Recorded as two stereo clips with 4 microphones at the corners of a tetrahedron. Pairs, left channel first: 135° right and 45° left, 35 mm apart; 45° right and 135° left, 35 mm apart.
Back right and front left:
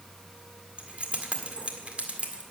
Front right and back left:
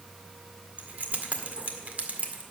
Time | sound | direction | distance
0.8 | keys jangling | 95° left | 1.8 m